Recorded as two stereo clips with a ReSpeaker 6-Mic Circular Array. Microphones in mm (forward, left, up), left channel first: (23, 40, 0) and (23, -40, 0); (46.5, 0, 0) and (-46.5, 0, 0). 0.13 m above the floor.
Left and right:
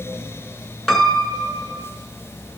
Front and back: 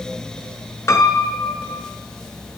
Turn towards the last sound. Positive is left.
turn(degrees=10)